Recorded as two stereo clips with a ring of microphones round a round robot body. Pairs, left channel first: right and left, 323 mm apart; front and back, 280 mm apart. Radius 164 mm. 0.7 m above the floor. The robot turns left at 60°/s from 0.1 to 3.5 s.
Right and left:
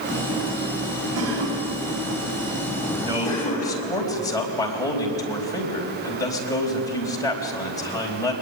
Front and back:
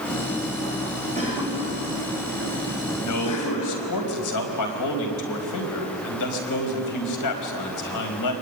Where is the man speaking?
20° left, 4.5 m; by 8.3 s 10° right, 4.5 m.